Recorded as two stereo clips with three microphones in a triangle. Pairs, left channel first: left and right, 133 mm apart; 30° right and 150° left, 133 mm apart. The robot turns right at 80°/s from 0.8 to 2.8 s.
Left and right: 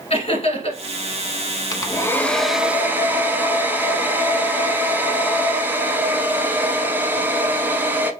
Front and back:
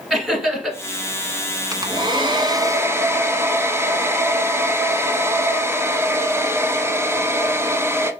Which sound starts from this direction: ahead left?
Laughter, at 0.1 s.